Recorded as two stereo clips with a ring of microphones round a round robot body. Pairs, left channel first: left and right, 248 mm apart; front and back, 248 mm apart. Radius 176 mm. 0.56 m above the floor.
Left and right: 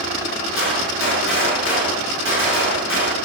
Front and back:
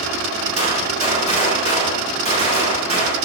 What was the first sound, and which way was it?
A gunshot, 60° left.